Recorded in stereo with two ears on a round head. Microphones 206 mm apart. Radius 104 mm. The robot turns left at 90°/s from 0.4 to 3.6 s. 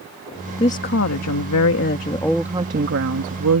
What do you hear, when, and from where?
0.6 s a woman speaking: 160° left; by 3.6 s 110° right